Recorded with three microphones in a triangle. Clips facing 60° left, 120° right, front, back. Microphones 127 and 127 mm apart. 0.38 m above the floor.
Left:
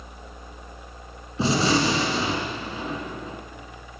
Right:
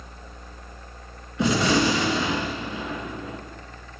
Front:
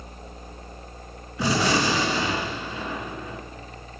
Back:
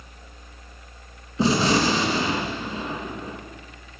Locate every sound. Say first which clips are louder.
1.4 s a gunshot: right 1 dB, back 3 dB; 115° left, 2.5 m